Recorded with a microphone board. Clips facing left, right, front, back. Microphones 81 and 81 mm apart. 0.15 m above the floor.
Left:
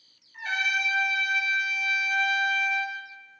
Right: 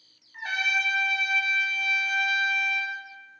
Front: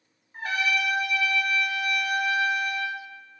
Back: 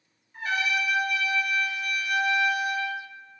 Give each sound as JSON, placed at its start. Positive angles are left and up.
{"t": 0.3, "sound": "a trumpet", "azimuth_deg": -45, "distance_m": 0.6}